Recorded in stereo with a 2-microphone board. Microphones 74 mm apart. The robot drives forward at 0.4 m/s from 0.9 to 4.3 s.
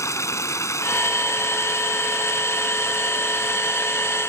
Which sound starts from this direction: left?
Running water, at 0.0 s.